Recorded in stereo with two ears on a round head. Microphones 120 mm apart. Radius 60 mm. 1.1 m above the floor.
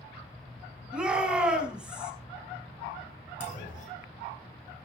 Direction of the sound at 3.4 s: 60° left (ahead or behind).